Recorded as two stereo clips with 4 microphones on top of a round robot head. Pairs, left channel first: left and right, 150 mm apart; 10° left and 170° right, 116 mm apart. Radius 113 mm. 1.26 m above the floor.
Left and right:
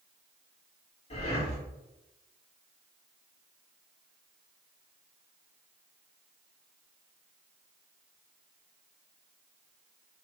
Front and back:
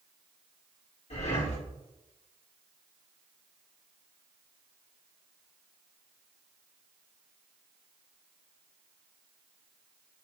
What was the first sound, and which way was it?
Breathing, 40° left.